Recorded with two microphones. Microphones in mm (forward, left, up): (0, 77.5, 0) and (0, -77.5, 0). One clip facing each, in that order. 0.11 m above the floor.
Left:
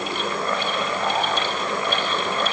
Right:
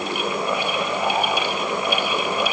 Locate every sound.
Only background noise.